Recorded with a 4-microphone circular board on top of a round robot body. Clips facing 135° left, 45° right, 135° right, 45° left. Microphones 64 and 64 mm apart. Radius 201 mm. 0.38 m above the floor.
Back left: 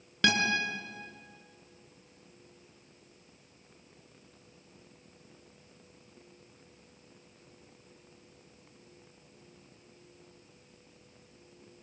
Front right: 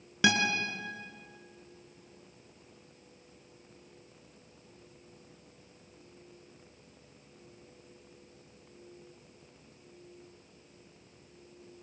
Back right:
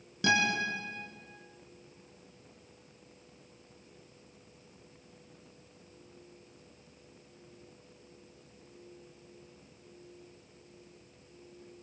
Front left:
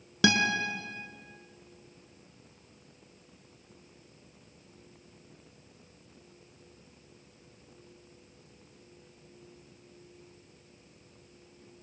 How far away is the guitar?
About 3 m.